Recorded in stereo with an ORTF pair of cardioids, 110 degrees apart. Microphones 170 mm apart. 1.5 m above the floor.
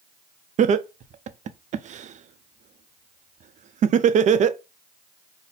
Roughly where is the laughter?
Ahead right.